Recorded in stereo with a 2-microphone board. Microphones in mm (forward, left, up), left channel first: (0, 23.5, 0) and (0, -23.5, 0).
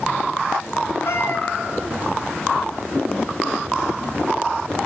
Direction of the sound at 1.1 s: 65° left (ahead or behind).